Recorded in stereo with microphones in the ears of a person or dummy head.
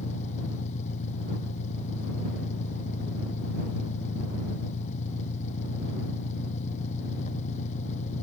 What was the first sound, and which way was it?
An engine running, 50° left (ahead or behind).